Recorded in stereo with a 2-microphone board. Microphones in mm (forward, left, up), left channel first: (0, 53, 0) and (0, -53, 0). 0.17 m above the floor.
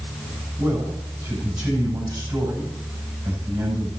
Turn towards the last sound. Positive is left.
turn(degrees=-40)  # may be behind; listen again after turning